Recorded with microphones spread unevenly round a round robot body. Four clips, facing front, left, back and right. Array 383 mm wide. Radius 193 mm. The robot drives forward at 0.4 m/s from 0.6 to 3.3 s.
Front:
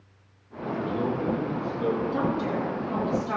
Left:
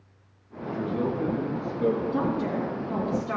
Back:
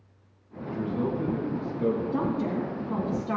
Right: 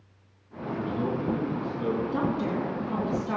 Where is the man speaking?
155° right, 3 m; by 2.0 s 160° right, 3.5 m.